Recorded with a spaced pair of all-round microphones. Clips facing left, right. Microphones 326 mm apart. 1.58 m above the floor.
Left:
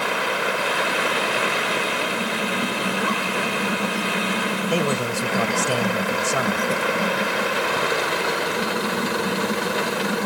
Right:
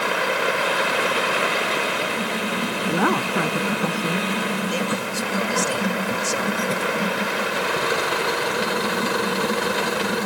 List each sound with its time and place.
2.9 s a woman speaking: 70° right (ahead or behind); by 4.2 s 75° right (ahead or behind)
4.7 s a man speaking: 75° left (ahead or behind)